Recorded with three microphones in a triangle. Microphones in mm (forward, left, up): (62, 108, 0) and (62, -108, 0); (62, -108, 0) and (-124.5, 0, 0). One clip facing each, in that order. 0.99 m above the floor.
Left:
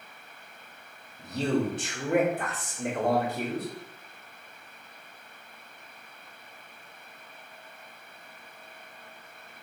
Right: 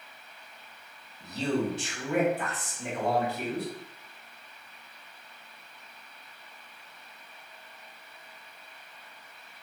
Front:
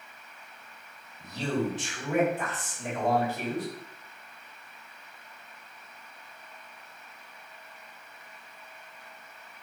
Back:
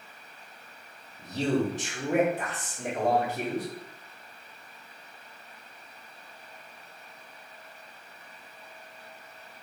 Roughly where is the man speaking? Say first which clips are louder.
Left 2 dB, back 3 dB; left.